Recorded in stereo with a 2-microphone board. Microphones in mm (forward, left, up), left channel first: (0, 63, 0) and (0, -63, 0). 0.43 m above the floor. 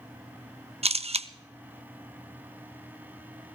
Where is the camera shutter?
55° right (ahead or behind), 0.5 m.